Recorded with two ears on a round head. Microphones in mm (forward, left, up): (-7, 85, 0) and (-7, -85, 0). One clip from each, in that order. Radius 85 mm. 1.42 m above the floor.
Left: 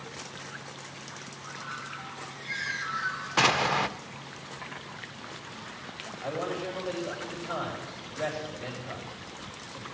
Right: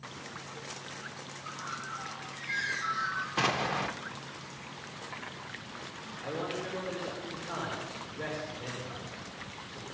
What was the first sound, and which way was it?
A bird, 20° right (ahead or behind).